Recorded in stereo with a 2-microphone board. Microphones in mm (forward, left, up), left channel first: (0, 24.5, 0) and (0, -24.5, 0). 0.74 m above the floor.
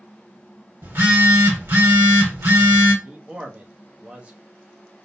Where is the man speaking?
25° right (ahead or behind), 0.6 m.